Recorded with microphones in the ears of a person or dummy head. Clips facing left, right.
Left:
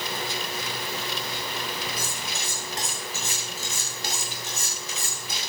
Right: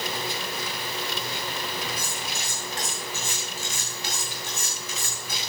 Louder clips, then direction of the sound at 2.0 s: Even; 35° left (ahead or behind).